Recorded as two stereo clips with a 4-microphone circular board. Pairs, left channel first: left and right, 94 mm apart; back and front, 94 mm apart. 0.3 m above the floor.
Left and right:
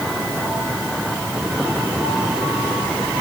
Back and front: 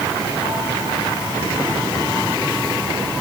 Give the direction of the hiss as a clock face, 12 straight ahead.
I don't hear a hiss.